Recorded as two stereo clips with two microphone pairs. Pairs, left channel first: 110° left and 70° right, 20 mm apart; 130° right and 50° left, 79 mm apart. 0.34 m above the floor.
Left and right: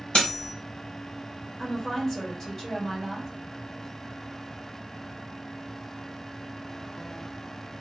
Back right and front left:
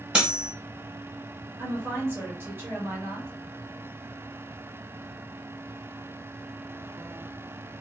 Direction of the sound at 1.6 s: 65° left.